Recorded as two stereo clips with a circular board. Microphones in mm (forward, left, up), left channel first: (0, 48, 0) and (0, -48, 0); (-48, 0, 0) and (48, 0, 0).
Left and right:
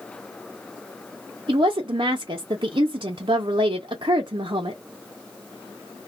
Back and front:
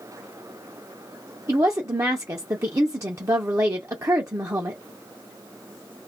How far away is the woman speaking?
About 0.5 m.